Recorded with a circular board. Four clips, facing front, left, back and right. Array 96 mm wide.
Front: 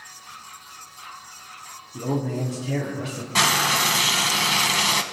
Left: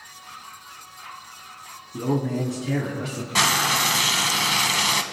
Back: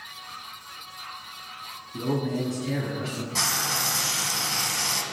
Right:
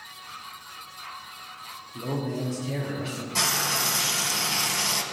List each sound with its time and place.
1.9 s a man speaking: 110° left, 3 m
3.4 s frying: 40° left, 0.8 m